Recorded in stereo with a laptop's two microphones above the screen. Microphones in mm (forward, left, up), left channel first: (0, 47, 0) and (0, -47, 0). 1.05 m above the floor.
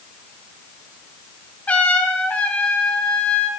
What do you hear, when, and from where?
1.7 s a trumpet: 15° left (ahead or behind), 0.8 m